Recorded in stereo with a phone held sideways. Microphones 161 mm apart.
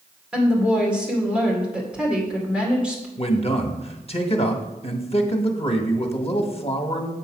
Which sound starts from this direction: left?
A man speaking, at 3.2 s.